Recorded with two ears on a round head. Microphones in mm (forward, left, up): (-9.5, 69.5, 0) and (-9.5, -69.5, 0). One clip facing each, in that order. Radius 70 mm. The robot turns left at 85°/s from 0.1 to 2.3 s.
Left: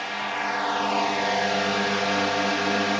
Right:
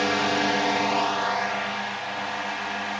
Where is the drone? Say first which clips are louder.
Right 6 dB; 105° right; by 3.0 s 65° left.